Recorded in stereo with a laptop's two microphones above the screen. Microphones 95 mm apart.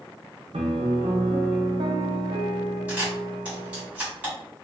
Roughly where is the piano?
Right.